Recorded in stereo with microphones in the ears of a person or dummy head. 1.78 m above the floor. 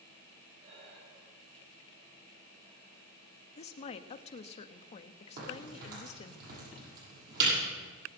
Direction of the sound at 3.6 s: 35° left (ahead or behind).